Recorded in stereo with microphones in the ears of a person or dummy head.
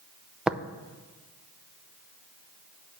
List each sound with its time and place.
0.5 s tapping: 5° right (ahead or behind), 0.5 m